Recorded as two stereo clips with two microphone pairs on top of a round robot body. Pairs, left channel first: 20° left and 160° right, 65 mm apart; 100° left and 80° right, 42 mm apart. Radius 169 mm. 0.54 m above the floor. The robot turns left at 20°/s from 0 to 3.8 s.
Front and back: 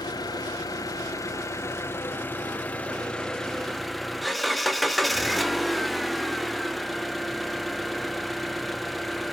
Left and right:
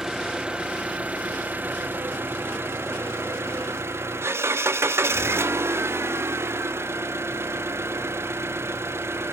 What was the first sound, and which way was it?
An engine running, straight ahead.